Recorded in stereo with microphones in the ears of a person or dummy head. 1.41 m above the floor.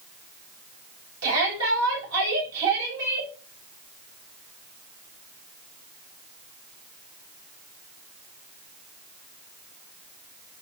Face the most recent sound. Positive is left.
turn(degrees=-80)